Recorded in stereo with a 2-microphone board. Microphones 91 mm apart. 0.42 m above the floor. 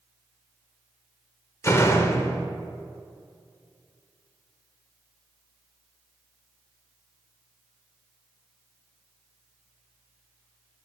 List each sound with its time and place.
1.6 s a door slam: 30° left (ahead or behind), 0.6 m